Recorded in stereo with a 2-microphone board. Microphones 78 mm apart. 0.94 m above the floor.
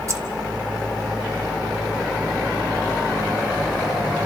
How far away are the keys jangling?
About 1.2 m.